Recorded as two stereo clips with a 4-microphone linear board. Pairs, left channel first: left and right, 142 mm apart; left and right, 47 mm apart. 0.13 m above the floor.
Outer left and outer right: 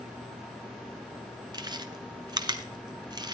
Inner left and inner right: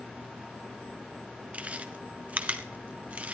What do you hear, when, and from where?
1.5 s chewing: 30° right (ahead or behind), 1.0 m